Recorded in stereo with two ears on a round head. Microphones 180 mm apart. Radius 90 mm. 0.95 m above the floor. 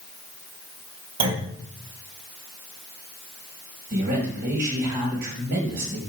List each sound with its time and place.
1.2 s a clunk: 70° right (ahead or behind), 2.0 m
3.9 s a man speaking: 55° right (ahead or behind), 3.5 m